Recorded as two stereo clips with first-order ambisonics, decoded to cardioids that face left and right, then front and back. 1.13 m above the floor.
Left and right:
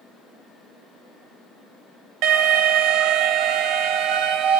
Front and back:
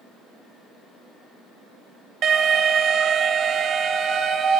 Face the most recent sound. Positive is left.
turn(degrees=-120)